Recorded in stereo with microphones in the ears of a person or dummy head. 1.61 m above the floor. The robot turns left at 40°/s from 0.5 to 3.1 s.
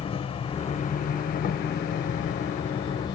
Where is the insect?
140° left, 0.8 m; by 3.1 s 35° left, 0.8 m.